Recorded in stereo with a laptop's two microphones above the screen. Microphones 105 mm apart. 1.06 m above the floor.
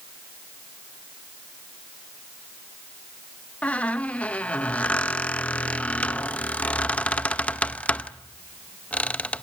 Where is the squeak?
15° left (ahead or behind), 0.7 m.